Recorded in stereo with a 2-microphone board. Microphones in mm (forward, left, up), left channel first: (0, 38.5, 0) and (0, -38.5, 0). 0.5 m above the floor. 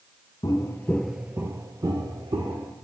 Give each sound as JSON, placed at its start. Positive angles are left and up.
{"t": 0.4, "sound": "footsteps", "side_deg": 55, "distance_m": 0.7}